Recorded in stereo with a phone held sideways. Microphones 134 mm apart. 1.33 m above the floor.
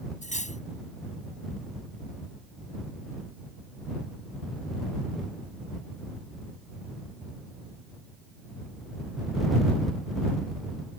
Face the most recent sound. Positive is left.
turn(degrees=65)  # may be behind; listen again after turning